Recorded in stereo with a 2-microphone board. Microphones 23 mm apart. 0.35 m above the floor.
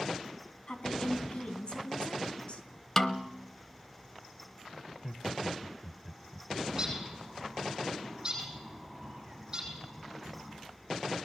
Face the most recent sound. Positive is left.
turn(degrees=-25)  # may be behind; listen again after turning